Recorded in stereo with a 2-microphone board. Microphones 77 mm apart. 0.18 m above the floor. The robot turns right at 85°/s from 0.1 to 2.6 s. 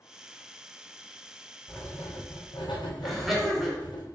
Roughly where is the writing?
Ahead.